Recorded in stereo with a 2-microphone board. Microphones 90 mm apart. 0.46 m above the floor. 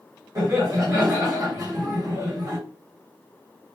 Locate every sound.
0.3 s laughter: 40° right (ahead or behind), 1.9 m